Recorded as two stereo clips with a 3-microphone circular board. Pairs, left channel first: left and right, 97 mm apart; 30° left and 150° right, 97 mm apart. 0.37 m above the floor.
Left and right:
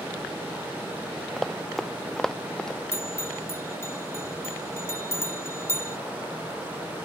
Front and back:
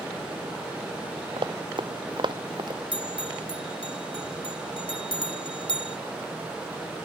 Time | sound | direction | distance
1.4 | running footsteps | straight behind | ?
2.9 | a bell | 30° left | ?